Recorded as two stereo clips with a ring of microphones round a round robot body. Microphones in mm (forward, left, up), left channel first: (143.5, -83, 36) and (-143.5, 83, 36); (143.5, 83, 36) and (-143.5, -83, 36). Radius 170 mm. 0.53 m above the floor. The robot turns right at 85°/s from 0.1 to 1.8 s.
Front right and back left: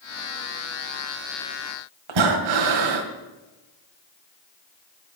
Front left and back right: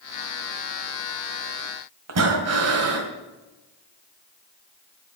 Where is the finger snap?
No finger snap in this recording.